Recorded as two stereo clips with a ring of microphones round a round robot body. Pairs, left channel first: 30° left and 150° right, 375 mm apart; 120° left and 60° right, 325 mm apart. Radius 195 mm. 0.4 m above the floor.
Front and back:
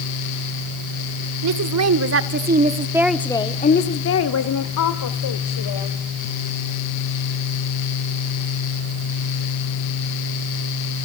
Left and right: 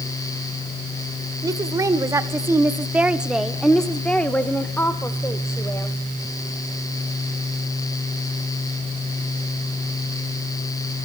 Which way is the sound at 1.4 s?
135° right.